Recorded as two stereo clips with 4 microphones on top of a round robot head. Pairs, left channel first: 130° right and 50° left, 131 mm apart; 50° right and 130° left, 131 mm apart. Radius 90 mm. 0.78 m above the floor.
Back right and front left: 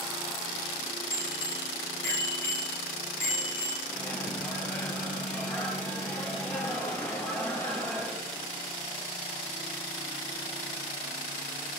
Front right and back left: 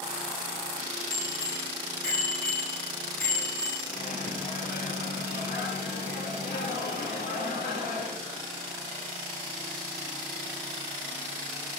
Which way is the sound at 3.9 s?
50° right.